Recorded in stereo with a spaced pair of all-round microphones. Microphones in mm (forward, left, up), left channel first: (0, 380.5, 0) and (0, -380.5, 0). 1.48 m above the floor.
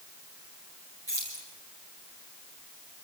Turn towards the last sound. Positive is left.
turn(degrees=-35)  # may be behind; listen again after turning